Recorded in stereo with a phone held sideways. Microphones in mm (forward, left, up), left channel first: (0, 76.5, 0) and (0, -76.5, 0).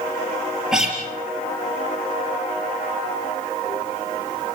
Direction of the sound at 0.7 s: 5° right (ahead or behind).